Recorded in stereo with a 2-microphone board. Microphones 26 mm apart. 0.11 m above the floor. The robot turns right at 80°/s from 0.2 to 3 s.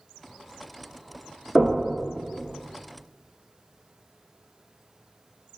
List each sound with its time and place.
1.6 s knocking: 20° left (ahead or behind), 0.8 m; by 1.8 s 25° left (ahead or behind), 0.8 m